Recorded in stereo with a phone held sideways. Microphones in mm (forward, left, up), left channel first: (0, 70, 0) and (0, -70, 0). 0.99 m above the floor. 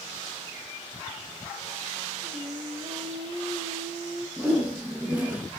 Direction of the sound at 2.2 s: 40° right (ahead or behind).